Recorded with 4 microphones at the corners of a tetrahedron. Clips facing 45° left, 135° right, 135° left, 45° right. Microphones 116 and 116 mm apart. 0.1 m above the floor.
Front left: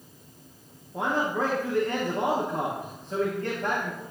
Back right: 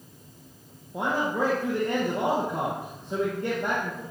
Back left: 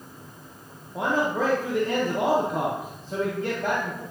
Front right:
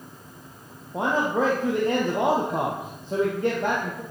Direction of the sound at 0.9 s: 65° right.